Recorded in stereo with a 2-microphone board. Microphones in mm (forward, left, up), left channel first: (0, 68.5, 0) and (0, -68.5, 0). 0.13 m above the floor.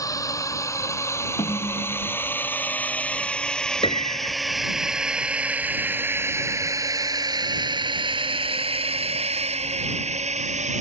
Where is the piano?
45° left (ahead or behind).